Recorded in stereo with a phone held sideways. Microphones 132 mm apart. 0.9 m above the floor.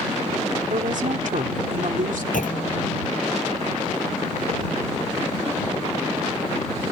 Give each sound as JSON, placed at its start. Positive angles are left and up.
{"t": 0.7, "sound": "a woman speaking", "side_deg": -75}
{"t": 2.3, "sound": "a clunk", "side_deg": 80}